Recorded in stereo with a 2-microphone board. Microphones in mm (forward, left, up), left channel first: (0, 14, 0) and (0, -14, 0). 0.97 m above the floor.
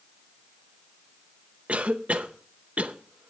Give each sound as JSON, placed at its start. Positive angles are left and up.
{"t": 1.7, "sound": "a cough", "side_deg": -45, "distance_m": 0.8}